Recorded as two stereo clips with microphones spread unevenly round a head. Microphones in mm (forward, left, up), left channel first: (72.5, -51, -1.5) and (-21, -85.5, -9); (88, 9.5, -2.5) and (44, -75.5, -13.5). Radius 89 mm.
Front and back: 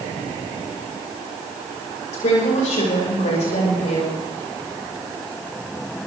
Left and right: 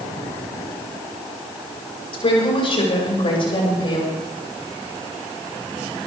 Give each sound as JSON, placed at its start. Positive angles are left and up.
{"t": 2.1, "sound": "a woman speaking", "azimuth_deg": 40, "distance_m": 5.5}